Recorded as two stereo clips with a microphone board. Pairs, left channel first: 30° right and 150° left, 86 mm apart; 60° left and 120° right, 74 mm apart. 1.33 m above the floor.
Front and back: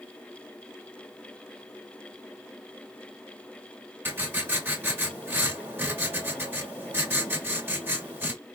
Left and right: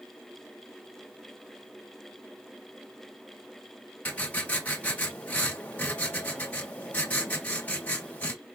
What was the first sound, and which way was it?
Writing, 105° left.